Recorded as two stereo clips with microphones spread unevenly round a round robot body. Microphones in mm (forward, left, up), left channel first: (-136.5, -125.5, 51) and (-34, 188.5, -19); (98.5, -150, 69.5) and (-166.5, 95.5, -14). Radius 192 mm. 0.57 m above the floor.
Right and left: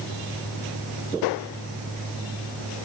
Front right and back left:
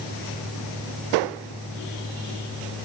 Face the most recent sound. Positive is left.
No sound to turn to.